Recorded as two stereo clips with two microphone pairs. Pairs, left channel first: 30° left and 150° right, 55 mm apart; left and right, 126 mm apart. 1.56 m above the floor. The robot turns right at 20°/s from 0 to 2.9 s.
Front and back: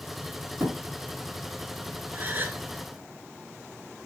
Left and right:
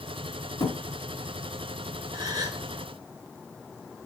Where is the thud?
155° left, 5.5 m; by 0.8 s 160° left, 5.5 m.